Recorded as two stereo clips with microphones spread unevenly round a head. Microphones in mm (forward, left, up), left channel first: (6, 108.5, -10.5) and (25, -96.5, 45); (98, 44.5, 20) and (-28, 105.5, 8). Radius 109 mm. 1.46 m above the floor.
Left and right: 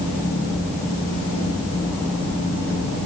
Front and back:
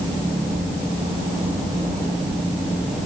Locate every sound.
Only background noise.